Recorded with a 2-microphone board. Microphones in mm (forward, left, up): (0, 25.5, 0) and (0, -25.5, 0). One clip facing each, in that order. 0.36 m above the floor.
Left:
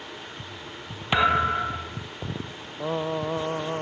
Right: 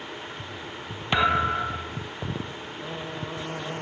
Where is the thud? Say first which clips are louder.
Left 1 dB; 5° left (ahead or behind).